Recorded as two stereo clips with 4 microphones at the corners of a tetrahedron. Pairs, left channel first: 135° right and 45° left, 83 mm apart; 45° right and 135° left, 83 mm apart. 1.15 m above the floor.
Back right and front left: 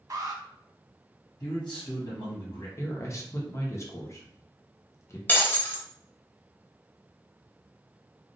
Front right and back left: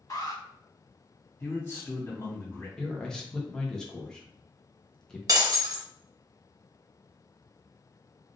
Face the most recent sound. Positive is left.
turn(degrees=165)